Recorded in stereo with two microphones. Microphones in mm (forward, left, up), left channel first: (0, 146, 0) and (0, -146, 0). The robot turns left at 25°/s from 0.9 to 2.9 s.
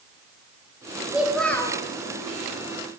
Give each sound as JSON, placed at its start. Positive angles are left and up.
{"t": 1.1, "sound": "a child speaking", "side_deg": -5, "distance_m": 1.7}